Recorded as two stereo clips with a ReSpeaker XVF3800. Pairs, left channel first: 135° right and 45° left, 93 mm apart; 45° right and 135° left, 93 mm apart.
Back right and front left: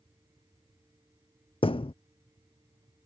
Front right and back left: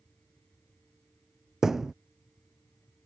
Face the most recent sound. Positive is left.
turn(degrees=-140)